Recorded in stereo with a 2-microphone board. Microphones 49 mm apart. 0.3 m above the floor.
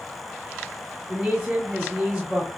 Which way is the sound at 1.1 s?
15° right (ahead or behind).